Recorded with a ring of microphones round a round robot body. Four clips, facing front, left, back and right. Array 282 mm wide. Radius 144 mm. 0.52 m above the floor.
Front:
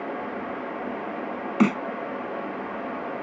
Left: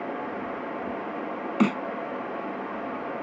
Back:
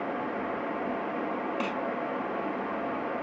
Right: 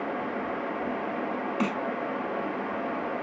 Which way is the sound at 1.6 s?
25° left.